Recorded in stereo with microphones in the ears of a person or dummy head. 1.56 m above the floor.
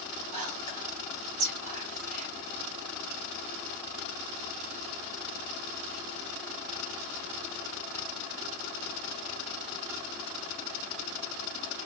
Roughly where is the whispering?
Right.